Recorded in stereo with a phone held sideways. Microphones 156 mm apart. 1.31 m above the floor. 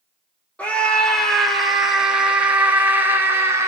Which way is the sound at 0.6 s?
10° left (ahead or behind).